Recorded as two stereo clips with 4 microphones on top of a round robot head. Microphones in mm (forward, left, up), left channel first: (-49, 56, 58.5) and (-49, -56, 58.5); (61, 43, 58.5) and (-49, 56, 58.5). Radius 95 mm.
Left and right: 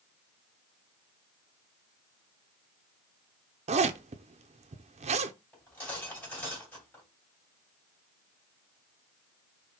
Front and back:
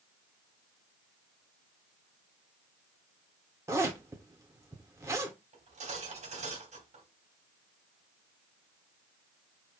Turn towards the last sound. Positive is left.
turn(degrees=165)